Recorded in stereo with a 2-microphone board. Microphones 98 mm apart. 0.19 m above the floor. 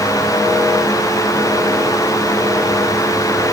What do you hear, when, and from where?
Only background noise.